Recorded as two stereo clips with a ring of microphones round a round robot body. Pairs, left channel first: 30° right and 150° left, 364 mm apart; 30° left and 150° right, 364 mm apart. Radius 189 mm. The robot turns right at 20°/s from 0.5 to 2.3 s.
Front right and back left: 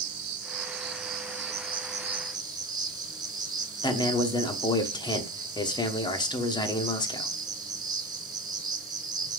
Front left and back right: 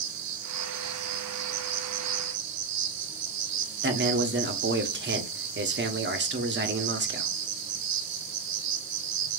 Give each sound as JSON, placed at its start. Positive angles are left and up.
{"t": 0.0, "sound": "an insect", "azimuth_deg": -165, "distance_m": 0.9}
{"t": 3.8, "sound": "a man speaking", "azimuth_deg": -105, "distance_m": 1.1}